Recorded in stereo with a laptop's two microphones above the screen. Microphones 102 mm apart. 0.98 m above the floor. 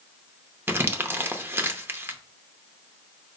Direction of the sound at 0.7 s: 20° right (ahead or behind).